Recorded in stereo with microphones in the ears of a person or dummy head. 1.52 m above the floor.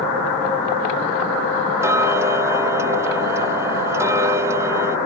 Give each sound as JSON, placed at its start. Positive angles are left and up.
{"t": 1.8, "sound": "ticking", "side_deg": -10}